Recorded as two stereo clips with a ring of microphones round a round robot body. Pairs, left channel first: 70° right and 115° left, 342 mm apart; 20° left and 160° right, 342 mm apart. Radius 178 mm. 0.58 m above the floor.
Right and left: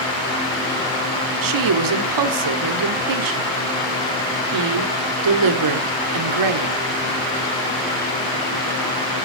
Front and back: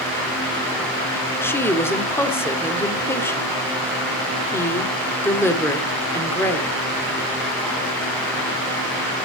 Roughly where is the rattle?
No rattle in this recording.